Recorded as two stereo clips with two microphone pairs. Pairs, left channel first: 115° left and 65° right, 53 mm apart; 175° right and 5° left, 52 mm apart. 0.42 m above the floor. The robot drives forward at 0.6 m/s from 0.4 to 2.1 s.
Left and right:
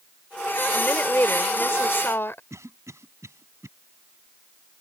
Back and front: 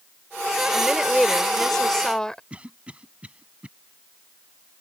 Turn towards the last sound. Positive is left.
turn(degrees=-60)